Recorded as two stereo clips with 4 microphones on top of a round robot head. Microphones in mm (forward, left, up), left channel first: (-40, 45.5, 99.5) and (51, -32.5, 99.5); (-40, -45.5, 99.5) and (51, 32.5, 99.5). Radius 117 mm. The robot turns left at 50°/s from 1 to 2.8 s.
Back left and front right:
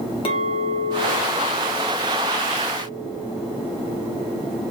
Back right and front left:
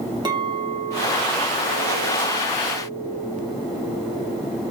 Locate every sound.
0.2 s a clink: 95° left, 2 m; by 4.4 s 5° left, 2 m